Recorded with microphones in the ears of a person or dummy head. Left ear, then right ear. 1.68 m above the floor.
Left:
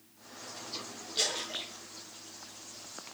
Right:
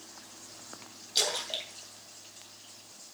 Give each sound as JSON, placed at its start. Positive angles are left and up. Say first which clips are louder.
{"t": 1.1, "sound": "a splash", "louder": "right 2 dB", "side_deg": -60, "distance_m": 3.5}